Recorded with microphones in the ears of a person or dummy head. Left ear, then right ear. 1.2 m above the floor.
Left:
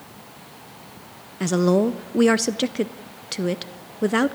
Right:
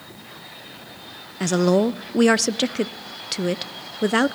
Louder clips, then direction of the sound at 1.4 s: Right 1 dB; 15° right (ahead or behind).